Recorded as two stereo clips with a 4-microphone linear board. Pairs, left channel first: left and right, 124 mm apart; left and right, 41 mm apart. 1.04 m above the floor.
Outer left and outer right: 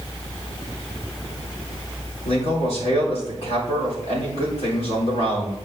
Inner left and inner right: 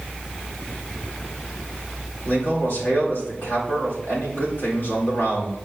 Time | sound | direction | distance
2.2 | a man speaking | 65° left (ahead or behind) | 4 m